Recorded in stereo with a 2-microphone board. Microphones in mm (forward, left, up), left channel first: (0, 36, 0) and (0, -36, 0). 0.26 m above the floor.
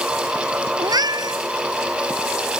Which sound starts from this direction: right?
A cat meowing, at 0.8 s.